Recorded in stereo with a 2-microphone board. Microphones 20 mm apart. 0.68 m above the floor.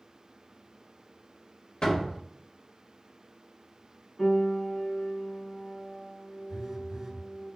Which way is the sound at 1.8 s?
45° left (ahead or behind).